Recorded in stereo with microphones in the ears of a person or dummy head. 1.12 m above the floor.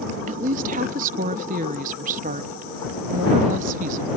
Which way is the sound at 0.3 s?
35° right (ahead or behind).